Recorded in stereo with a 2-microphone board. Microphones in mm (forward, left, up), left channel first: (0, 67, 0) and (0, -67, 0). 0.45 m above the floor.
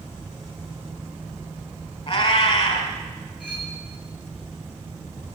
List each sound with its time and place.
2.1 s a cat meowing: 55° left (ahead or behind), 2.0 m
3.4 s cutlery clinking: 5° left (ahead or behind), 5 m